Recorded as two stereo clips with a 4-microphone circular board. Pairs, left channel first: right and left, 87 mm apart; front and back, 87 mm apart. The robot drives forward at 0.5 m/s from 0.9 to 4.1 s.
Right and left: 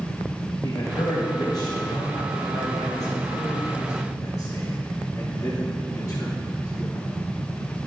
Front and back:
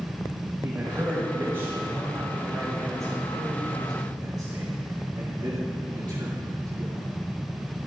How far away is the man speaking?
About 2 m.